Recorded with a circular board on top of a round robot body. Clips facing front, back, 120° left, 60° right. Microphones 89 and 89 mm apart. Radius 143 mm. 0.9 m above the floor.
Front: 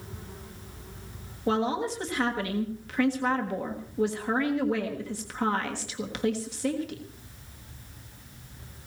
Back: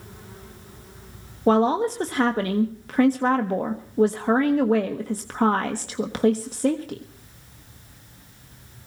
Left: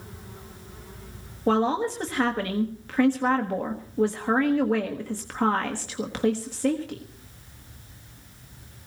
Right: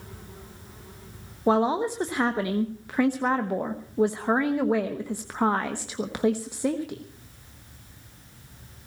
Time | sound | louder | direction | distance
1.5 | a woman speaking | back 8 dB, right 1 dB | 135° right | 1.3 m